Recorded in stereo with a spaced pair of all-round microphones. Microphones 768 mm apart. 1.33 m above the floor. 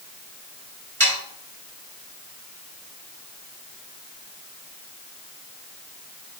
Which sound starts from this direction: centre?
Sawing, at 1.0 s.